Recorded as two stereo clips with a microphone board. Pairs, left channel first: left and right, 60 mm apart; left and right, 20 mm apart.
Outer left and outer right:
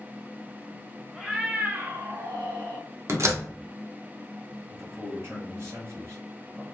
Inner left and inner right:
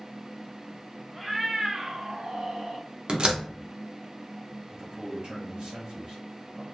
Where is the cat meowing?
Centre (ahead or behind), 0.9 m; by 2.9 s 70° right (ahead or behind), 1.0 m.